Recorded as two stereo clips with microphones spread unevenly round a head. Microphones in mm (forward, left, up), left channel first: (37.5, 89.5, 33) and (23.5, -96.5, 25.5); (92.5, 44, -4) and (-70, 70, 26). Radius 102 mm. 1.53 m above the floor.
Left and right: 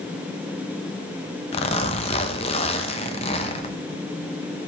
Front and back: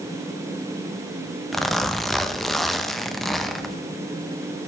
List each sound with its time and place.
1.5 s a zipper: 100° left, 0.8 m